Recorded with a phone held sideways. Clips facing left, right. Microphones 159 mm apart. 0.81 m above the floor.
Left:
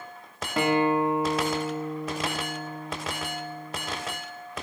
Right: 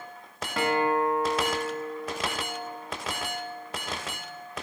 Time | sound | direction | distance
0.6 | a guitar | 20° left (ahead or behind) | 0.9 m